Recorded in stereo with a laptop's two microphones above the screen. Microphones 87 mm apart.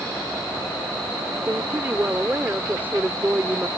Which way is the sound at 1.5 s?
25° right (ahead or behind).